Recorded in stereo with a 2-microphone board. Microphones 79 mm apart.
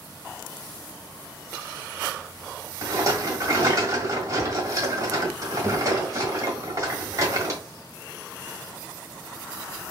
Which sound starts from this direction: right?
A rattle, at 2.8 s.